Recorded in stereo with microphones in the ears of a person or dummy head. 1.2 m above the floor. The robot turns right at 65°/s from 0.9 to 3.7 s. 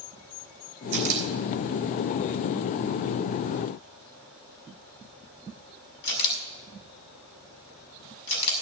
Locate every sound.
0.9 s a camera shutter: 55° right (ahead or behind), 5.5 m; by 8.6 s 60° left (ahead or behind), 5.5 m